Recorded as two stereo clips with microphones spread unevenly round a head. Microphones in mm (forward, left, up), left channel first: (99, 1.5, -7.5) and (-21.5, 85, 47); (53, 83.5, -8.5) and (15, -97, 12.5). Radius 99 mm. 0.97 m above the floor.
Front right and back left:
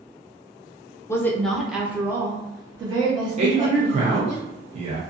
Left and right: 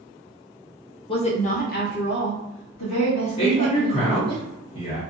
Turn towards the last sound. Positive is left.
turn(degrees=95)